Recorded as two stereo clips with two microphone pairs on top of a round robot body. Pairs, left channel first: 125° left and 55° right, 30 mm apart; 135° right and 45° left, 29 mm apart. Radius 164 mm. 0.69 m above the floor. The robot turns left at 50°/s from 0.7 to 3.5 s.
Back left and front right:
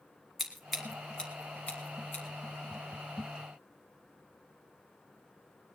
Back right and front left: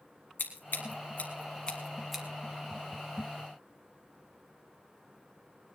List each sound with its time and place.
0.4 s scissors: 155° right, 1.1 m; by 2.2 s 130° left, 1.1 m